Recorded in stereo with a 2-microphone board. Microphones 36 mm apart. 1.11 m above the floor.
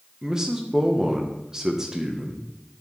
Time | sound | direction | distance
0.2 | a man speaking | 15° right (ahead or behind) | 1.1 m